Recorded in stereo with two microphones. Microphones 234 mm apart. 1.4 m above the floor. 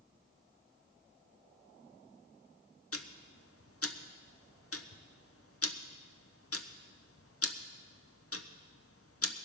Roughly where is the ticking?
Left.